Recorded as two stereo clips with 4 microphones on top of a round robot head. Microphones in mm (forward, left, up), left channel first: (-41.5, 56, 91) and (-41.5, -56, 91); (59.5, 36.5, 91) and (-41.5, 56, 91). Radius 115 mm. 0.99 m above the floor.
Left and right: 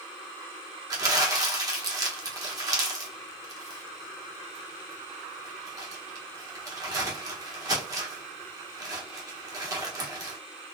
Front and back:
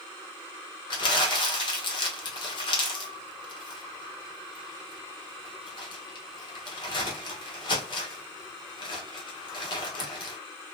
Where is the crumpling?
40° right, 1.2 m.